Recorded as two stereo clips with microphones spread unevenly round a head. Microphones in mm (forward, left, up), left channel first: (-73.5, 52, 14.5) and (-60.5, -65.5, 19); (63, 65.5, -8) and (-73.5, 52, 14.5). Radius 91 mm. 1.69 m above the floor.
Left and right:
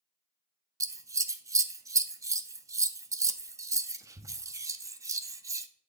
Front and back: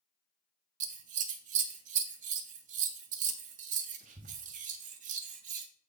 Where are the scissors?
145° right, 0.5 m.